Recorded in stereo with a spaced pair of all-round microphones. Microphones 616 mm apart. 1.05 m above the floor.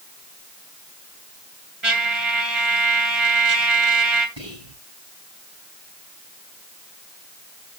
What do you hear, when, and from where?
1.8 s a trumpet: 50° right (ahead or behind), 2.5 m
4.4 s whispering: 45° right (ahead or behind), 8 m